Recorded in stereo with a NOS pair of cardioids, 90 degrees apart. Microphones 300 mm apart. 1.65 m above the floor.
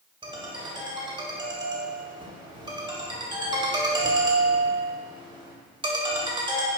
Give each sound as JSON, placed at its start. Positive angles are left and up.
{"t": 0.2, "sound": "a ringtone", "azimuth_deg": -15, "distance_m": 2.5}